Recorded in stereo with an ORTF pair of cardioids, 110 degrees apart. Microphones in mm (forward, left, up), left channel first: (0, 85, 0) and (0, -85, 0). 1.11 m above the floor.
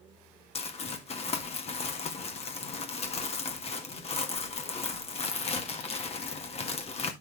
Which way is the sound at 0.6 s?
40° left.